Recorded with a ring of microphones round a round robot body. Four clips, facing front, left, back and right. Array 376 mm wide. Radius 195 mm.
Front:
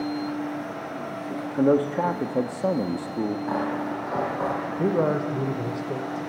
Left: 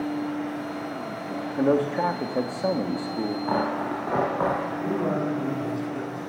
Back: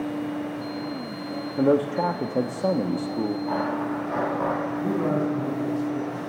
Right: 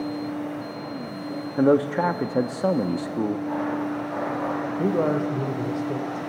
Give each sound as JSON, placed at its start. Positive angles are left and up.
{"t": 1.6, "sound": "a man speaking", "azimuth_deg": -85, "distance_m": 1.1}
{"t": 3.5, "sound": "tearing paper", "azimuth_deg": 75, "distance_m": 5.0}
{"t": 4.8, "sound": "a man speaking", "azimuth_deg": -40, "distance_m": 2.5}